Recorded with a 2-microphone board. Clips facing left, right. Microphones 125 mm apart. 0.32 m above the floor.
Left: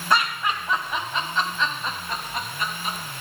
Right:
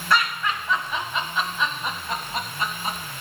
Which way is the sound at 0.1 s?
20° left (ahead or behind).